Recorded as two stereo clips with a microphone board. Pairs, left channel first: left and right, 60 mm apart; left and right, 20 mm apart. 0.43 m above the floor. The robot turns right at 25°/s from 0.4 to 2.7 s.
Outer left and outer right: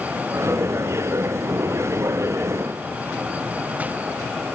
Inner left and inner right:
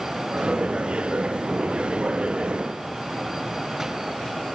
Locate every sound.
Only background noise.